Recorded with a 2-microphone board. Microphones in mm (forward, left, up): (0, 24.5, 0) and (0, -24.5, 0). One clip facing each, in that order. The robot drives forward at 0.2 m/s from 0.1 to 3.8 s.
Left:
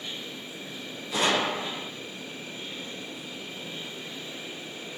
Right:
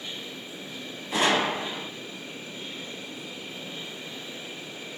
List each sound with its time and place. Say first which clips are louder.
1.1 s a gunshot: right 2 dB; 35° right (ahead or behind), 1.3 m